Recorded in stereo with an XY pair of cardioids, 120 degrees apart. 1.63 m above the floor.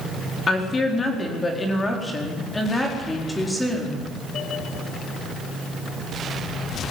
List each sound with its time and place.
0.5 s a woman speaking: 25° left, 4.5 m; by 4.1 s straight ahead, 4.5 m